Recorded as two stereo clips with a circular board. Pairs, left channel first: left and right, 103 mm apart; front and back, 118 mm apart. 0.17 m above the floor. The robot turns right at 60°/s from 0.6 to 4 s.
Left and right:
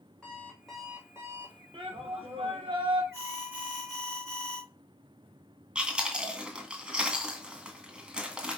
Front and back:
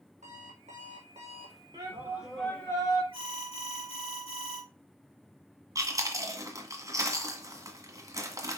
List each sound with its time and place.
0.2 s an alarm clock: 170° left, 3 m; by 1.6 s 125° right, 3 m
1.7 s a shout: 125° right, 3.5 m; by 3.0 s 45° right, 3.5 m
3.1 s an alarm: 45° right, 4 m; by 4.6 s 10° left, 4 m
5.8 s chewing: 160° right, 1.7 m